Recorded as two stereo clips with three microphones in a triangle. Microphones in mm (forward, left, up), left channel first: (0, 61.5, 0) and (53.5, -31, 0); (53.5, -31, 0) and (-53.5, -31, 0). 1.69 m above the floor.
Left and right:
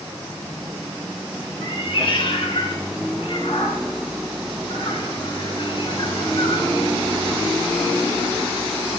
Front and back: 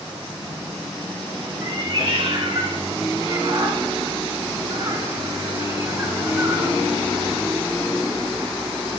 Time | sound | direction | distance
1.6 | a cat meowing | 150° left | 4 m